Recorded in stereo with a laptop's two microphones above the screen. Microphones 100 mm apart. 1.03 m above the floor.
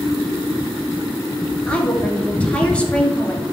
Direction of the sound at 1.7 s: 10° left (ahead or behind).